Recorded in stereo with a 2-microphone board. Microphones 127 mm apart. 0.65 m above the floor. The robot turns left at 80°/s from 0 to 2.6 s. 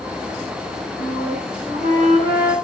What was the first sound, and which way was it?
A flute, 40° right.